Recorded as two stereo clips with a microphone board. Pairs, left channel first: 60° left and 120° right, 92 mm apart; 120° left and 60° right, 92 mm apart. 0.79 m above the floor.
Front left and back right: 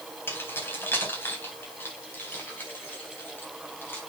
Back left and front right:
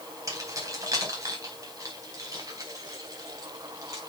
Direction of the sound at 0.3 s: 5° right.